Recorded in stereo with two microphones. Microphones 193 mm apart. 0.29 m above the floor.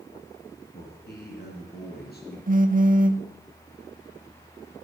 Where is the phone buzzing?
45° right (ahead or behind), 0.5 m.